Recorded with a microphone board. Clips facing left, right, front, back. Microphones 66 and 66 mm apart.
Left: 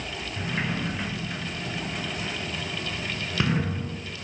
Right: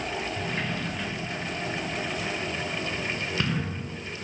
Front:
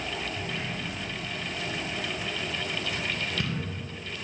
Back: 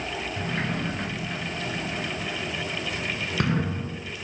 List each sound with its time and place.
0.4 s a sliding door: 160° left, 1.7 m